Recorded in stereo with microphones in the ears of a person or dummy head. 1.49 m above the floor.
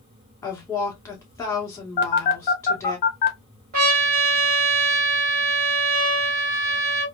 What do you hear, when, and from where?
0.4 s a woman speaking: 15° left (ahead or behind), 1.5 m
2.0 s a phone buzzing: 30° left (ahead or behind), 0.7 m
3.7 s a trumpet: 50° right (ahead or behind), 1.4 m